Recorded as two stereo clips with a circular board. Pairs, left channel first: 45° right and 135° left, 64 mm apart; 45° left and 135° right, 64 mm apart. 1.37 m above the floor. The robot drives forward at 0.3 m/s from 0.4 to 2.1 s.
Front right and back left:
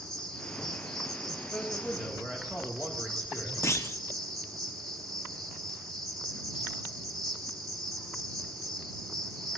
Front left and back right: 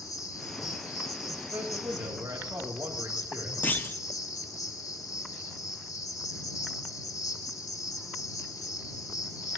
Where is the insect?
35° left, 4.5 m; by 9.6 s 40° left, 4 m.